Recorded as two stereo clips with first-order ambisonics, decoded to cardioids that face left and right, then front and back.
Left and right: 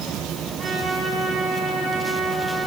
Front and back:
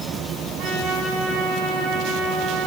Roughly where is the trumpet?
Behind right.